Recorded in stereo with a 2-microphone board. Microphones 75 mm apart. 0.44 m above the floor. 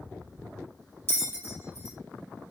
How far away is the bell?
About 1.3 m.